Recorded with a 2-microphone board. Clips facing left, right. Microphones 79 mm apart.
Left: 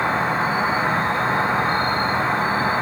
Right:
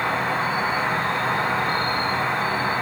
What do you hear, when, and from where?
0.0 s an insect: 40° left (ahead or behind), 3.5 m